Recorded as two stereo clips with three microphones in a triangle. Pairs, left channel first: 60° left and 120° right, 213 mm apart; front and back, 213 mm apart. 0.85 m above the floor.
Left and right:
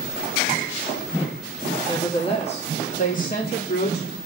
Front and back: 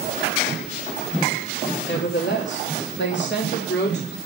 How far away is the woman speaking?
About 2 m.